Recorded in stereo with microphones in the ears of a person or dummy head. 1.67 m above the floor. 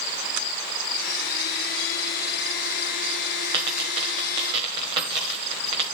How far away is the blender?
About 0.9 m.